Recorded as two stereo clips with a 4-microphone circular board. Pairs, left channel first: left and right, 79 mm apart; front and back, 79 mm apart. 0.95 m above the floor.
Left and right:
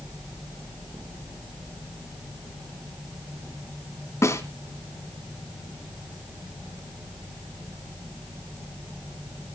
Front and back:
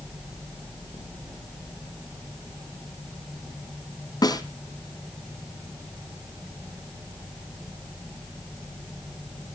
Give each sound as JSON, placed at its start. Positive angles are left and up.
{"t": 4.2, "sound": "a snare drum", "azimuth_deg": 35, "distance_m": 2.5}